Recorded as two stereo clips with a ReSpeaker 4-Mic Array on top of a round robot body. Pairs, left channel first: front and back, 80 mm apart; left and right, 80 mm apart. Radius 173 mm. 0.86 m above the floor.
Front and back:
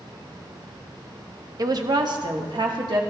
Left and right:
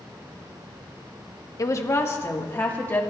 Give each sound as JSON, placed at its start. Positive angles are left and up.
{"t": 1.6, "sound": "a woman speaking", "azimuth_deg": 140, "distance_m": 1.0}